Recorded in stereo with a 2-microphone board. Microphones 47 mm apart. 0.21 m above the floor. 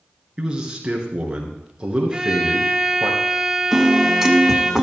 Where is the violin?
10° right (ahead or behind), 1.1 m.